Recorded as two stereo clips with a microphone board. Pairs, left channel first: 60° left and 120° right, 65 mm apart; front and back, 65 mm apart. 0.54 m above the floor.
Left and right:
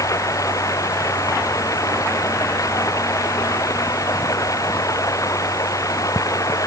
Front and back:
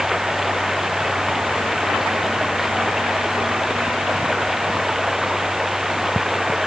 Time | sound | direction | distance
0.0 | running water | 95° left | ?